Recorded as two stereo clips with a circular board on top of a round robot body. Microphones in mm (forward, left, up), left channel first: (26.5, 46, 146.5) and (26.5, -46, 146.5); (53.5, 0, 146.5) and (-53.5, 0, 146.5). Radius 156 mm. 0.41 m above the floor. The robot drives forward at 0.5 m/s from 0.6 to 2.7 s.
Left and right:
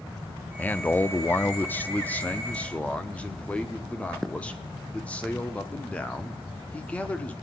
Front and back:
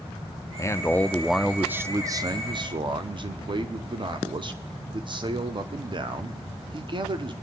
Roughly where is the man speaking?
Ahead left.